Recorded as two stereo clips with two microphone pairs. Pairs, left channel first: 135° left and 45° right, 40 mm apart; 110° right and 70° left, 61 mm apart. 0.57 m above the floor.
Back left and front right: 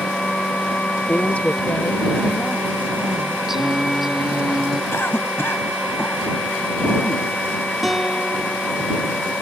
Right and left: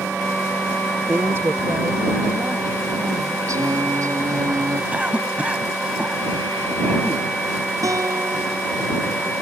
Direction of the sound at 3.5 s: 40° left.